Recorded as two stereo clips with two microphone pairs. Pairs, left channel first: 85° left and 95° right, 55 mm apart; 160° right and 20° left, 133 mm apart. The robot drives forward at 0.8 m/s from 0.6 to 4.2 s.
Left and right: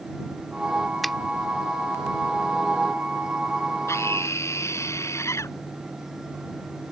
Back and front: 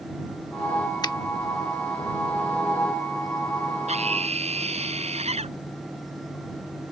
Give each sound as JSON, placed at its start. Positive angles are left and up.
{"t": 1.0, "sound": "a finger snap", "azimuth_deg": 175}
{"t": 3.9, "sound": "a scream", "azimuth_deg": 55}